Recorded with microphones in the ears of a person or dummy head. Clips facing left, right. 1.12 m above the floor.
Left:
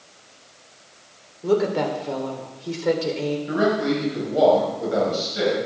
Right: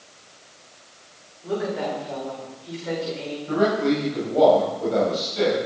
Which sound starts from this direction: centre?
A man speaking, at 3.5 s.